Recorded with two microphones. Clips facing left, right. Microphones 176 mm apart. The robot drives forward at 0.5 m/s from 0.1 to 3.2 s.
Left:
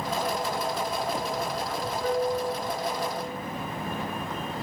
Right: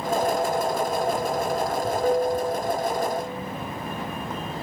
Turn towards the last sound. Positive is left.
turn(degrees=-65)  # may be behind; listen again after turning